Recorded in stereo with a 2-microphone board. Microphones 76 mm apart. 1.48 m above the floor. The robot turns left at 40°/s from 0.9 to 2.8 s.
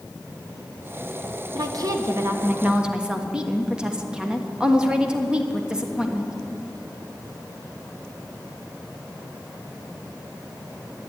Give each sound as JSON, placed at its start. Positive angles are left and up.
{"t": 1.6, "sound": "a woman speaking", "azimuth_deg": -120, "distance_m": 1.3}